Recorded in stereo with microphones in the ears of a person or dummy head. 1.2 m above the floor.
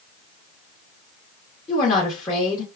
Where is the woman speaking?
15° left (ahead or behind), 0.8 m.